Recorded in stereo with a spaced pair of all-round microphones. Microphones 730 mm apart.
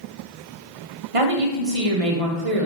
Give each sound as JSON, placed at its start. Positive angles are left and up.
{"t": 1.1, "sound": "a woman speaking", "side_deg": -50, "distance_m": 0.8}